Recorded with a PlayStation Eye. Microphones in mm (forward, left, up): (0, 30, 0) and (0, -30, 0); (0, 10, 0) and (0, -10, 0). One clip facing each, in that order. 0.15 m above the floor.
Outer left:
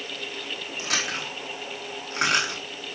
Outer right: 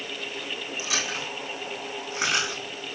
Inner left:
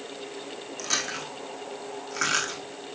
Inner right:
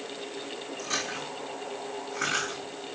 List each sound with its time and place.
0.8 s chewing: 60° left (ahead or behind), 6.5 m